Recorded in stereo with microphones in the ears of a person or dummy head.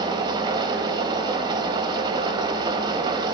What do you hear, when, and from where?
0.0 s an engine running: 25° right (ahead or behind), 3 m